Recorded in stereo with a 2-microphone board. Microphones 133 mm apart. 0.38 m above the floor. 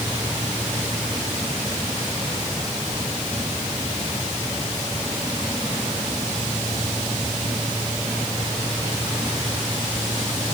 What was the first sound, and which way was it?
Only background noise.